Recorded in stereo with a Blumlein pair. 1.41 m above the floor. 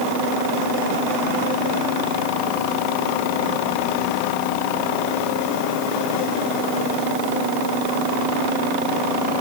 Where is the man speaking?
No man speaking in this recording.